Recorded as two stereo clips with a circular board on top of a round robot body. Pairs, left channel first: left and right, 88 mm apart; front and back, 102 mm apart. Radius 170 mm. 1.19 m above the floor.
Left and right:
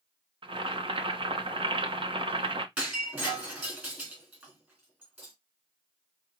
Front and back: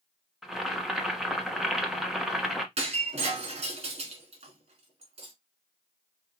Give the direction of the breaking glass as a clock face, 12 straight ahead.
5 o'clock.